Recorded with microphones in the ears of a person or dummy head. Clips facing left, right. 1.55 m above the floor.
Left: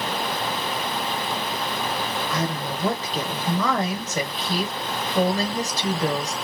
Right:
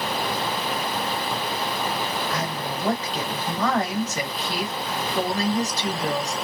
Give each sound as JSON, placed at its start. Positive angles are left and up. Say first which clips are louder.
{"t": 2.3, "sound": "a woman speaking", "louder": "left 1 dB", "side_deg": 90, "distance_m": 1.2}